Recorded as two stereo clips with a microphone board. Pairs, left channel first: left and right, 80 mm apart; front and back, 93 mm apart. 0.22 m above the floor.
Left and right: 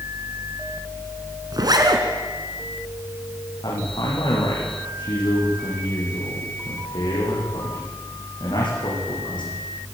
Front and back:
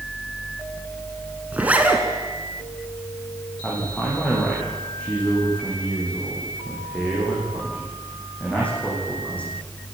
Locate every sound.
1.5 s a zipper: 105° right, 2.5 m
3.6 s a man speaking: 75° left, 10 m